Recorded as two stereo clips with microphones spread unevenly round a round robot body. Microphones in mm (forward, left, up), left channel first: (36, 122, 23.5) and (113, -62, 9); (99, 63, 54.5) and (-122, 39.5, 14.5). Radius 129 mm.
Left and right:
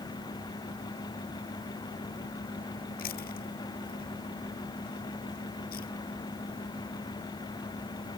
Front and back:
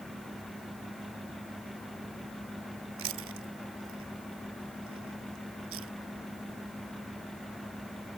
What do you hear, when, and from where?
3.0 s chewing: 170° left